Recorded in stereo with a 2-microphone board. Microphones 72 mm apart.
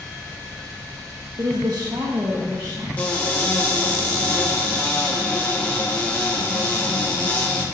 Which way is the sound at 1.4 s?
65° right (ahead or behind).